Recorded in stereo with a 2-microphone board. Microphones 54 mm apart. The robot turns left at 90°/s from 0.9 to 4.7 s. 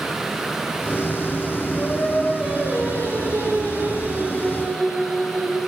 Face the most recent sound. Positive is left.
turn(degrees=155)